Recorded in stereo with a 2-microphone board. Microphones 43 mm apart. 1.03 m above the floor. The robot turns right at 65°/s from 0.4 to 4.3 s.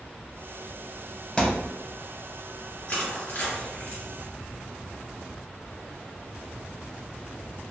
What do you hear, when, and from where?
1.4 s a thud: 20° left (ahead or behind), 0.5 m; by 1.8 s 5° left (ahead or behind), 0.5 m
2.9 s crushing: 35° left (ahead or behind), 1.7 m; by 4.0 s 55° left (ahead or behind), 1.7 m